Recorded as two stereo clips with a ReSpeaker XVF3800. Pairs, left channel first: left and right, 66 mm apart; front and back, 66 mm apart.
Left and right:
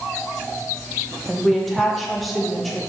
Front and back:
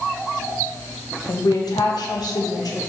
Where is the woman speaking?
Straight ahead, 1.5 m.